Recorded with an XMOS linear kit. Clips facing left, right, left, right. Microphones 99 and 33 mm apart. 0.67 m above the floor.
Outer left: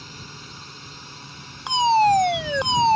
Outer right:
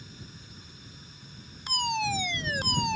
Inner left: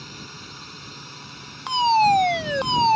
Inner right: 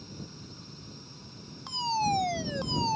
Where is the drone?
80° left.